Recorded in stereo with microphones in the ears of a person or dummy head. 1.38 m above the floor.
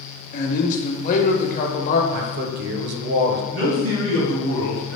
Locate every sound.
0.3 s a man speaking: 45° left (ahead or behind), 0.8 m
2.1 s a man speaking: 60° right (ahead or behind), 0.7 m
3.5 s a man speaking: 80° right, 2.0 m